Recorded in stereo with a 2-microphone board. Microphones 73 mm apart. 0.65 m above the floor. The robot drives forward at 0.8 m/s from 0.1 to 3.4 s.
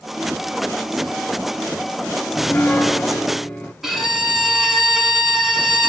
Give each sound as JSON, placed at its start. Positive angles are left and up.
{"t": 2.3, "sound": "a piano", "side_deg": 25, "distance_m": 0.5}
{"t": 3.8, "sound": "a violin", "side_deg": -5, "distance_m": 1.4}